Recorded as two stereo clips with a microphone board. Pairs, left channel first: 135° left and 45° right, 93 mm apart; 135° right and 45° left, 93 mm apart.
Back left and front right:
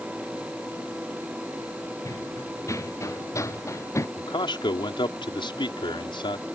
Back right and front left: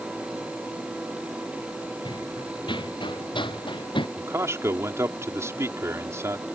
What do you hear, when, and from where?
2.0 s running footsteps: 165° right
4.2 s a man speaking: 105° left